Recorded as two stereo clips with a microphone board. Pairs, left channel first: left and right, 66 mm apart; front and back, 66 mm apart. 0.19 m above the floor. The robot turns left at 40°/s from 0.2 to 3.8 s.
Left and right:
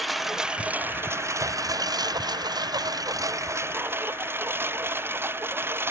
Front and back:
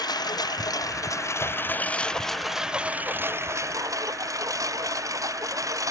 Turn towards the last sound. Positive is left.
turn(degrees=-145)